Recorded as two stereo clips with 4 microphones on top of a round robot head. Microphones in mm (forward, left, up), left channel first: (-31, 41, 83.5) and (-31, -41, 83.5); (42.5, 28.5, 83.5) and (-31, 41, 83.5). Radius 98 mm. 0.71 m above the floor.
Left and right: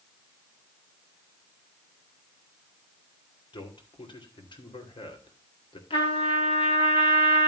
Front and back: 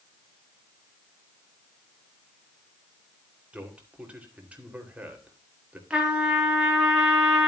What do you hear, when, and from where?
3.5 s a man speaking: 100° left, 2.5 m
5.9 s a trumpet: 95° left, 3 m